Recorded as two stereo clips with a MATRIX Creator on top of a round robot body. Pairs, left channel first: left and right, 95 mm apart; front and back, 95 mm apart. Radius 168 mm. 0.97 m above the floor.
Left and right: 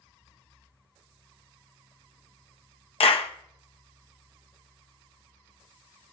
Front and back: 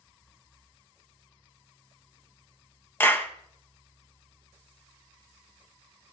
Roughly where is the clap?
Left.